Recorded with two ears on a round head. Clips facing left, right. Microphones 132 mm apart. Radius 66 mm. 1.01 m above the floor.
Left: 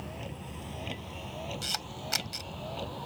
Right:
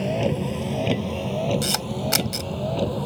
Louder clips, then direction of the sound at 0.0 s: Right 19 dB; 75° right (ahead or behind).